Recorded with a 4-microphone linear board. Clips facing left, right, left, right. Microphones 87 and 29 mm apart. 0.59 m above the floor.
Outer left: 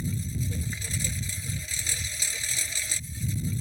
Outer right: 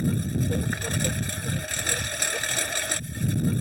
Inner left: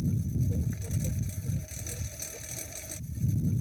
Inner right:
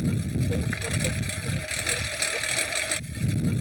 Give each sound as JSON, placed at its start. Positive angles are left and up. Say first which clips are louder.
{"t": 0.0, "sound": "a lawn mower", "louder": "outer right 7 dB, inner right 4 dB", "side_deg": -60}